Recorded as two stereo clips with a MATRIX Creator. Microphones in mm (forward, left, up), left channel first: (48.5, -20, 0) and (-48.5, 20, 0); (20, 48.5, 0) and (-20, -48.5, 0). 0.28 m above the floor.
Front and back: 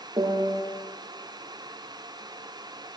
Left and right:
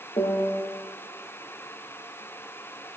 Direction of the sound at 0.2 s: 105° left.